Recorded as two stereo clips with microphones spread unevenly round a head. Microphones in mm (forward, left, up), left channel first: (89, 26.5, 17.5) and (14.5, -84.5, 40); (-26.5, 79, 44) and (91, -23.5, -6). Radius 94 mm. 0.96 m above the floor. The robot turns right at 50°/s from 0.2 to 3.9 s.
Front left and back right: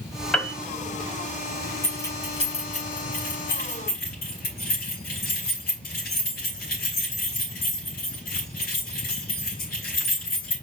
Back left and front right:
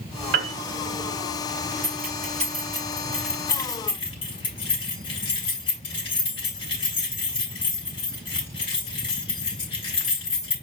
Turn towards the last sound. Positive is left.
turn(degrees=85)